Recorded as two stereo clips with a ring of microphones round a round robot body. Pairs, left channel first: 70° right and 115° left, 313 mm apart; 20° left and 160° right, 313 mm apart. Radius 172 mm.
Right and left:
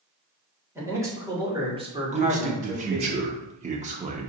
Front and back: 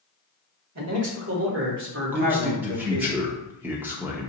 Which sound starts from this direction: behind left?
A man speaking, at 2.1 s.